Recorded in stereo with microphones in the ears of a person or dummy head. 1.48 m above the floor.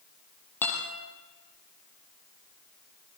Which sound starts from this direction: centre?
A guitar, at 0.6 s.